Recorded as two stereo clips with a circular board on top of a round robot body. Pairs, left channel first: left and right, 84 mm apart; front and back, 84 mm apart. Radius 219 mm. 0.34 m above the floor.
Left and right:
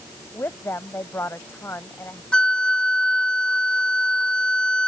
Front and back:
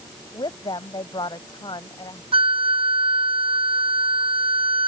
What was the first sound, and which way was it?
A woman speaking, 30° left.